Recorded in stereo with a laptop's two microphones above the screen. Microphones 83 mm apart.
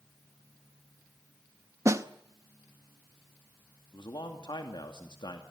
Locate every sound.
1.9 s a snare drum: 40° right (ahead or behind), 0.8 m
3.9 s a man speaking: 70° left (ahead or behind), 2.5 m